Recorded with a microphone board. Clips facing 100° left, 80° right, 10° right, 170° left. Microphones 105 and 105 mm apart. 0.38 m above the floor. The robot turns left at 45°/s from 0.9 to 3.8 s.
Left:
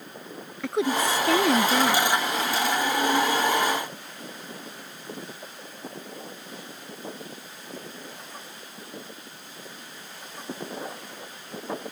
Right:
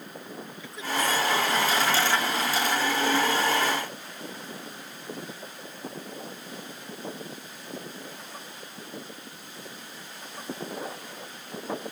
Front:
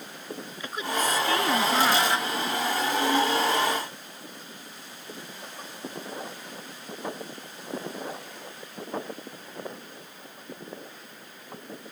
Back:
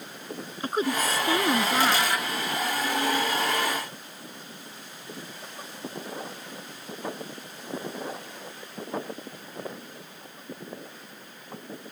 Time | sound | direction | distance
0.6 | a woman speaking | 120° left | ?